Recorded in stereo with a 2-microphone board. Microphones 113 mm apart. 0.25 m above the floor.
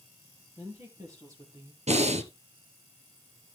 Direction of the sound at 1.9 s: 80° right.